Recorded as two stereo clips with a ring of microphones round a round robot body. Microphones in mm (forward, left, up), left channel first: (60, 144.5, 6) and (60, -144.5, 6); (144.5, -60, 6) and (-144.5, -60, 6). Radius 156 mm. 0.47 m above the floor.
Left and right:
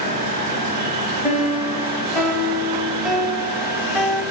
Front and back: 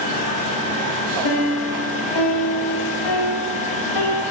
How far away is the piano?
About 1.8 m.